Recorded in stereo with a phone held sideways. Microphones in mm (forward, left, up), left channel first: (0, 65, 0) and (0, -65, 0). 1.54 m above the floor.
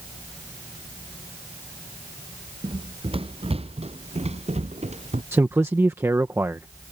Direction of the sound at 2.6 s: 40° right (ahead or behind).